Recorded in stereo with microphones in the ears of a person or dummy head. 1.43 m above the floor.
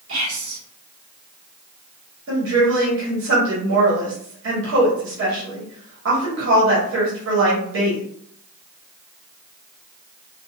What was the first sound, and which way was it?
Whispering, 75° right (ahead or behind).